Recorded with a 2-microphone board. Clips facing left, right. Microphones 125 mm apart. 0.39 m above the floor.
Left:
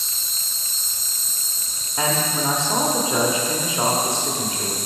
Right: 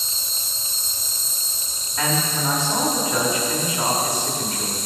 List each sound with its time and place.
0.0 s an insect: 60° left (ahead or behind), 0.8 m
2.0 s a man speaking: 25° left (ahead or behind), 0.9 m